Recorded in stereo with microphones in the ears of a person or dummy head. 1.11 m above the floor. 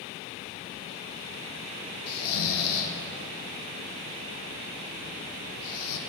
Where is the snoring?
70° left (ahead or behind), 0.6 m.